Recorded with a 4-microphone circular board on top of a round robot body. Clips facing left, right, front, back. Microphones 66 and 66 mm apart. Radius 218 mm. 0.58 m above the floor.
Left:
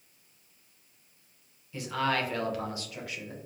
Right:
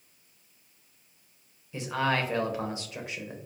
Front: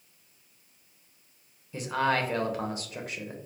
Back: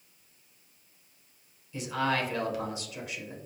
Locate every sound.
1.7 s a man speaking: 30° right, 1.0 m